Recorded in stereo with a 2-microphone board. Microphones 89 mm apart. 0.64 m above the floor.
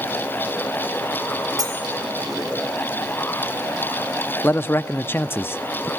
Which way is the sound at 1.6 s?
50° right (ahead or behind).